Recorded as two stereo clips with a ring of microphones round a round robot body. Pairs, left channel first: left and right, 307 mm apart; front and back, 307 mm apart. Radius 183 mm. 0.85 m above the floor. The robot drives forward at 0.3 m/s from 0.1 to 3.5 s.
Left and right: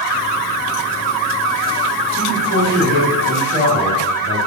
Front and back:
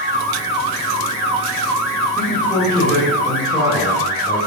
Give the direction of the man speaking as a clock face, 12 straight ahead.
3 o'clock.